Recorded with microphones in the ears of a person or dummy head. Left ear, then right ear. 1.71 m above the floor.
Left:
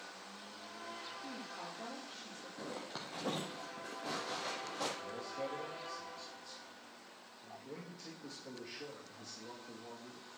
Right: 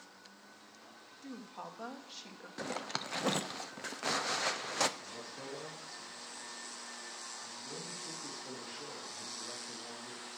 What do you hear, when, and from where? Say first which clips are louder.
1.2 s a woman speaking: left 1 dB; 70° right (ahead or behind), 2.0 m
2.6 s a zipper: right 7 dB; 70° right (ahead or behind), 0.7 m
5.0 s a man speaking: left 4 dB; 15° left (ahead or behind), 2.5 m